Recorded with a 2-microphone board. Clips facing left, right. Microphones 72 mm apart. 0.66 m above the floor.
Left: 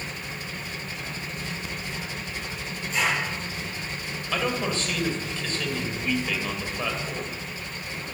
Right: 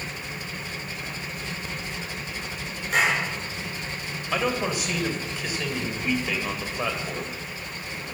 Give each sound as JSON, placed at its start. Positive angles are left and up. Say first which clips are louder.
{"t": 2.9, "sound": "a clap", "louder": "right 3 dB", "side_deg": -70, "distance_m": 10.0}
{"t": 4.3, "sound": "a man speaking", "louder": "right 1 dB", "side_deg": -10, "distance_m": 3.0}